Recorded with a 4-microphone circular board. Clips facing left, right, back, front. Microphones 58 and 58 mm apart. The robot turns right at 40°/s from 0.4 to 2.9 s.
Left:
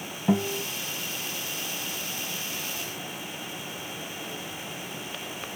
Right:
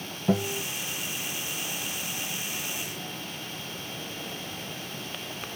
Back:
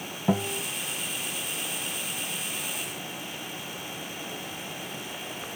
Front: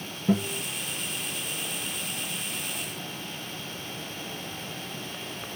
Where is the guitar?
165° left, 1.4 m; by 0.6 s 175° left, 1.4 m.